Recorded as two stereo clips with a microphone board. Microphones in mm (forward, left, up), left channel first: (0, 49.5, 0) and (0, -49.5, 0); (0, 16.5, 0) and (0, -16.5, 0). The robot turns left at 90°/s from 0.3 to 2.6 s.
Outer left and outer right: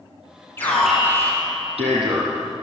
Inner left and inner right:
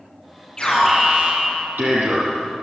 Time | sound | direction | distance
0.6 | an alarm | 25° left | 8 m